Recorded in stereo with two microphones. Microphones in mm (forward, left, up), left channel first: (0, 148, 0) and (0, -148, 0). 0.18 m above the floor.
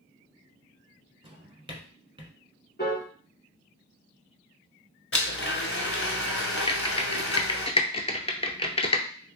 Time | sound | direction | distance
1.2 | a drawer | 15° right (ahead or behind) | 0.8 m
2.8 | a piano | 35° left (ahead or behind) | 1.8 m
5.1 | a blender | 45° left (ahead or behind) | 1.0 m
6.7 | typing on a keyboard | 20° left (ahead or behind) | 0.6 m